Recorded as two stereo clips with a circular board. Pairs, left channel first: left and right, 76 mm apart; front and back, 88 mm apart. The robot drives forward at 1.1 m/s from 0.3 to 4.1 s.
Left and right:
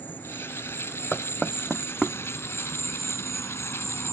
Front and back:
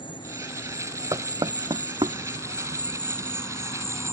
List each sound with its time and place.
0.0 s an insect: 25° left; by 4.1 s 50° left
1.1 s knocking: 175° left; by 2.2 s straight behind